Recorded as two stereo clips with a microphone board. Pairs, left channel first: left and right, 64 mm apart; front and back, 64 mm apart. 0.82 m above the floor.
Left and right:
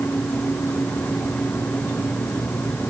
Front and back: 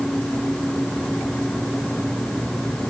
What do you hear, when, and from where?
Only background noise.